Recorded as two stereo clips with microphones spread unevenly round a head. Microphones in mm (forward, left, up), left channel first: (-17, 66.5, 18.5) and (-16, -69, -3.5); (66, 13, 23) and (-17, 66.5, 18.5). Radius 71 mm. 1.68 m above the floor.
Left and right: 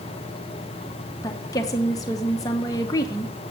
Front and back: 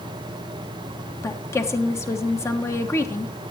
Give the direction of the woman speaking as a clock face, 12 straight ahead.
11 o'clock.